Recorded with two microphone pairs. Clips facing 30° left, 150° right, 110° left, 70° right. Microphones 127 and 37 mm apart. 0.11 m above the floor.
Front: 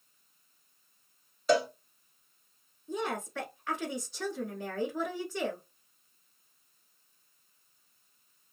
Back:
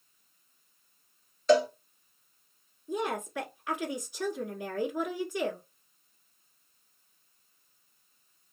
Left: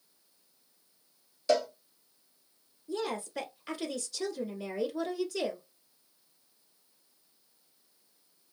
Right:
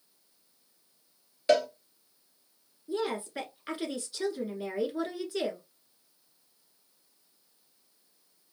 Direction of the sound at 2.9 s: 90° right.